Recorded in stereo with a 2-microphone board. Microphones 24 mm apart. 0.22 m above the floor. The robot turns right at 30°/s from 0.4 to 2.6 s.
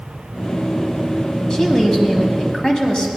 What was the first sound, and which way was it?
A woman speaking, 60° left.